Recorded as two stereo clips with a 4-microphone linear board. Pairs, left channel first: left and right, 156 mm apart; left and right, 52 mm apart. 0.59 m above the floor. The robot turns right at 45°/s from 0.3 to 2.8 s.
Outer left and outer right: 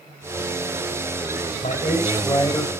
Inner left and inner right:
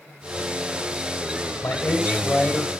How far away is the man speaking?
About 3.5 m.